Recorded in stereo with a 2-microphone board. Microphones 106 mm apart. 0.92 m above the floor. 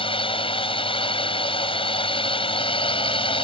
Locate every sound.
0.0 s a drone: 60° left (ahead or behind)